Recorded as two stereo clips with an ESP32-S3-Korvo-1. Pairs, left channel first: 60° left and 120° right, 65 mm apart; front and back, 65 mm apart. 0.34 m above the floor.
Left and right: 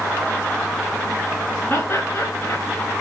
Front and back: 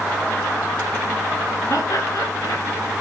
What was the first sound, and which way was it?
Laughter, 15° left.